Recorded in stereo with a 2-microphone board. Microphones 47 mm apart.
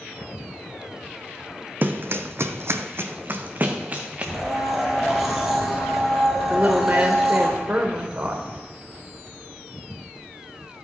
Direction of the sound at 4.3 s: 10° right (ahead or behind).